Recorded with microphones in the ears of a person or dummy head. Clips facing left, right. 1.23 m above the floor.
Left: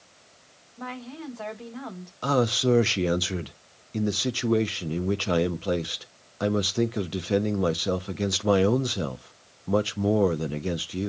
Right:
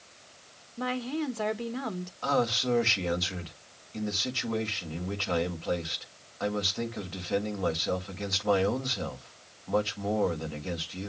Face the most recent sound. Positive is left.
turn(degrees=45)  # may be behind; listen again after turning